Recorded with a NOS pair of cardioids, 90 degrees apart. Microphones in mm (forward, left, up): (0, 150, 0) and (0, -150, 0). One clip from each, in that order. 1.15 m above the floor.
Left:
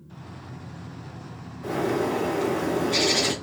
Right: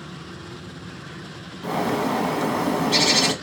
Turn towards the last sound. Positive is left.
turn(degrees=-70)